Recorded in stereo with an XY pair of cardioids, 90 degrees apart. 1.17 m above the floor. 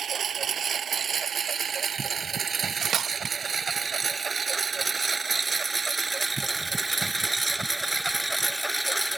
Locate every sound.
0.0 s a lawn mower: 60° right; by 9.2 s 5° right
2.5 s cutlery clinking: 65° right